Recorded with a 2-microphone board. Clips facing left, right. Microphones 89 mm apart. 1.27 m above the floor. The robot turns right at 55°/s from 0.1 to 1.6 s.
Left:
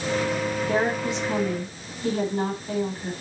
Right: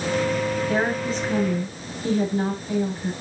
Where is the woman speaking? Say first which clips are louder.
Right 1 dB; 75° left, 4.5 m; by 3.1 s 130° left, 4.5 m.